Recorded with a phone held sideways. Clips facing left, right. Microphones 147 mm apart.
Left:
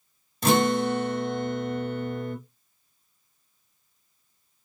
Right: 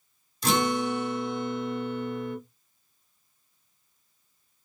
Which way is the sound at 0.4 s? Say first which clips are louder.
Left 4 dB; 60° left (ahead or behind).